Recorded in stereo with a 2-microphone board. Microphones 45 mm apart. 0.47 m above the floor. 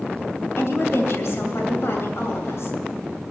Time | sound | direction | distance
0.6 | a woman speaking | 65° left (ahead or behind) | 2.5 m